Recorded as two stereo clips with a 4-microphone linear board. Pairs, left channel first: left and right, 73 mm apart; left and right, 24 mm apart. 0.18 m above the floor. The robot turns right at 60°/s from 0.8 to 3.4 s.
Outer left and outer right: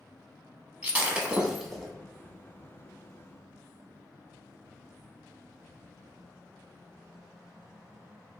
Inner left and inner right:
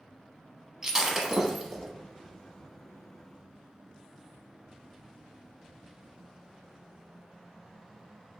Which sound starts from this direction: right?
Breaking glass, at 0.8 s.